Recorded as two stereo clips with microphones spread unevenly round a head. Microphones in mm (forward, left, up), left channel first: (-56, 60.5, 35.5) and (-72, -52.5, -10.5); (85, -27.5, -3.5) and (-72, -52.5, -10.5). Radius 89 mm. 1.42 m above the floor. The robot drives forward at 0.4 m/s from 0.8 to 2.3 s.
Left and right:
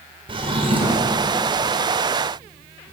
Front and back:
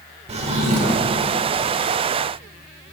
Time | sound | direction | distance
0.3 | a drawer | 150° right | 1.3 m